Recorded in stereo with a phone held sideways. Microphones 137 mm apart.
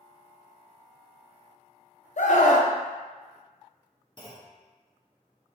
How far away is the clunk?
About 0.7 m.